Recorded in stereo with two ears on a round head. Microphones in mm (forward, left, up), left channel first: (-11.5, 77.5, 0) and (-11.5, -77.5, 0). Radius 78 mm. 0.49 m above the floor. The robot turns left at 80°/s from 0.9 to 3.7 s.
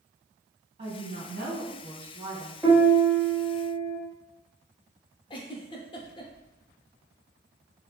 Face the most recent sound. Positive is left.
turn(degrees=30)  # may be behind; listen again after turning